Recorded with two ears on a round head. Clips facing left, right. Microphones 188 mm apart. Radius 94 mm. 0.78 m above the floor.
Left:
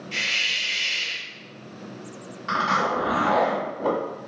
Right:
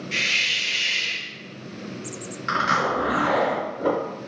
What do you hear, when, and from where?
0.1 s a hiss: 25° right (ahead or behind), 0.8 m
2.5 s a zipper: 25° right (ahead or behind), 1.6 m